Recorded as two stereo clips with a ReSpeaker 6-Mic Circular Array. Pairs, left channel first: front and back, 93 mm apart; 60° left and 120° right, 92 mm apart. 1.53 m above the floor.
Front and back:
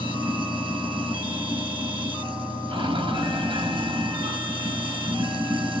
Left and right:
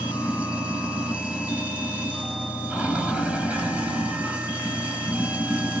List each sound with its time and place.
0.0 s running water: 160° left, 4.5 m